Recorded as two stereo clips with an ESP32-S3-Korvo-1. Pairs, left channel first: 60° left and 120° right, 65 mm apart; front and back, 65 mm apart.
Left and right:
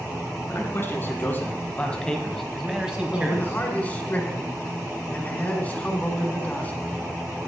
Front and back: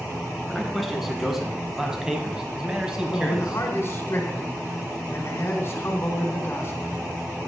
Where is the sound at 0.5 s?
90° left, 1.7 m; by 4.1 s 115° right, 1.4 m.